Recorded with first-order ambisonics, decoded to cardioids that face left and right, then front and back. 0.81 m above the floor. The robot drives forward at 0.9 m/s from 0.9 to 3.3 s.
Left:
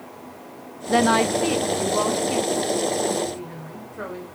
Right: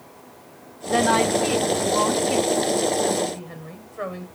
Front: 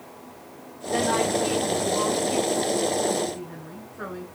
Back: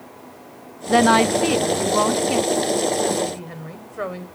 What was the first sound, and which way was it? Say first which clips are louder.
A woman speaking: even, back 8 dB; 160° left.